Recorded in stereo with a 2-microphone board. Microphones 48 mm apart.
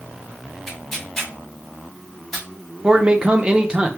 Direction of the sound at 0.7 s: 10° left (ahead or behind).